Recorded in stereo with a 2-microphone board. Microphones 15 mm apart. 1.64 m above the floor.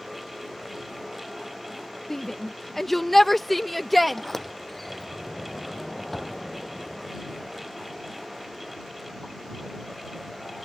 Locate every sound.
2.1 s a shout: 30° left (ahead or behind); by 4.2 s 5° left (ahead or behind)
4.1 s a sliding door: 15° left (ahead or behind)